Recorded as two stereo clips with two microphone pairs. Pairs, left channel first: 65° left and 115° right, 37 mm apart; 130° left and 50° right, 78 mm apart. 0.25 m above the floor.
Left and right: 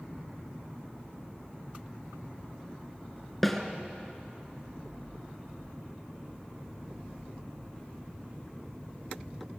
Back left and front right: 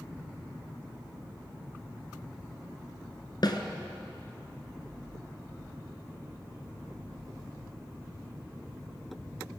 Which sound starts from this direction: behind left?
A snare drum, at 3.4 s.